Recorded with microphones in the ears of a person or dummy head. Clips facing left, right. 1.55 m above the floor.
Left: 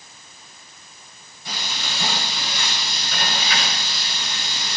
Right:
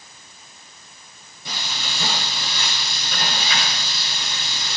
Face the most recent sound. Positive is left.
turn(degrees=-90)